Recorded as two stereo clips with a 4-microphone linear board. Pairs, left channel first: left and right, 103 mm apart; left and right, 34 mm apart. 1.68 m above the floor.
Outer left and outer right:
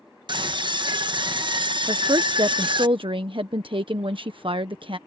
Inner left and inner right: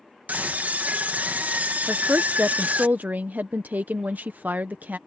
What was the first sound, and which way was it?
A scream, 50° right (ahead or behind).